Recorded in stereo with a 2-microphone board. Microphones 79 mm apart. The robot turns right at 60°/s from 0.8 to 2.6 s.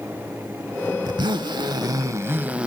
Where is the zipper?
110° right, 0.5 m; by 2.7 s 15° right, 0.5 m.